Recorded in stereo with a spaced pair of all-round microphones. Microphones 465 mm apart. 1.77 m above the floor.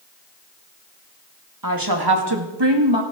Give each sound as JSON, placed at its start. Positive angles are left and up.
{"t": 1.6, "sound": "a woman speaking", "side_deg": -45, "distance_m": 2.5}